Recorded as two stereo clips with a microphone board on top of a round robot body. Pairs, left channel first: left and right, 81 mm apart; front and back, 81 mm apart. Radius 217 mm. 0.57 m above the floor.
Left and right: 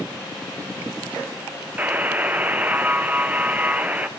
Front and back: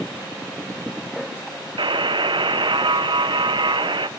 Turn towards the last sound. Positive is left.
turn(degrees=-160)